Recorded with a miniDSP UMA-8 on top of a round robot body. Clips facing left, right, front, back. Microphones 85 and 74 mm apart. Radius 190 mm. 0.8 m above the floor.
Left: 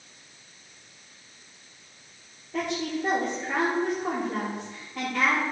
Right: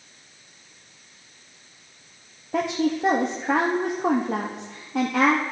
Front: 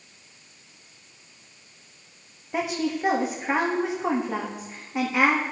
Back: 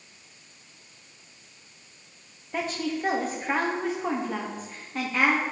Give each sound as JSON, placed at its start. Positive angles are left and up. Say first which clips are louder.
{"t": 2.5, "sound": "a woman speaking", "louder": "right 6 dB, front 3 dB", "azimuth_deg": -80, "distance_m": 1.2}